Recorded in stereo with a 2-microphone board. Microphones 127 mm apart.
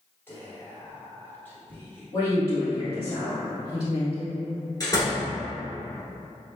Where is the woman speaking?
30° left (ahead or behind), 1.4 m.